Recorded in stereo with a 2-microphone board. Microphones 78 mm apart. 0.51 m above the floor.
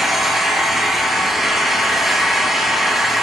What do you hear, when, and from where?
0.0 s an engine running: 5° right (ahead or behind), 2 m